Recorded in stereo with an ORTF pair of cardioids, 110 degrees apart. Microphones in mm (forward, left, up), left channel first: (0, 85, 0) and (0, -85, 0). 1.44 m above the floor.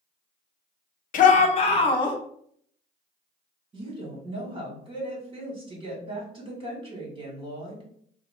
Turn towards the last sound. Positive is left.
turn(degrees=-30)